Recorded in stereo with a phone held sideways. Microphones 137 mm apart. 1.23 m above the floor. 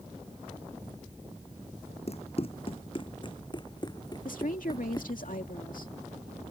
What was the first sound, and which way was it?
Running footsteps, 50° left (ahead or behind).